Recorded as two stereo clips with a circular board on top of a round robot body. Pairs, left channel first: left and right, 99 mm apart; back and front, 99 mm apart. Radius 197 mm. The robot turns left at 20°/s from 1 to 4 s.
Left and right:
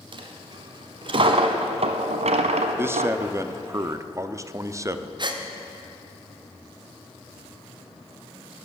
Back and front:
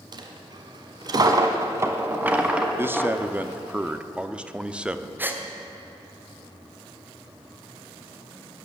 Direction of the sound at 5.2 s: 65° right.